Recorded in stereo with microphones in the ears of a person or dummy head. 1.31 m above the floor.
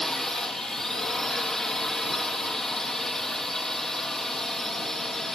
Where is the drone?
Centre (ahead or behind).